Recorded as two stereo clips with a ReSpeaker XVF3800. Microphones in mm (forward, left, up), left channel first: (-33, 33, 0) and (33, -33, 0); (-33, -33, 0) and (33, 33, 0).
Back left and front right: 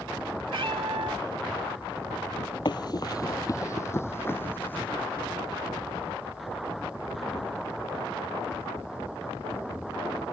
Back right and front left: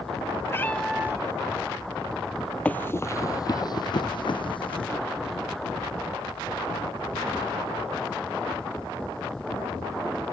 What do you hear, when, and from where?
0.5 s a cat meowing: 75° right; by 3.6 s 45° left
2.6 s running footsteps: 155° left; by 4.9 s 155° right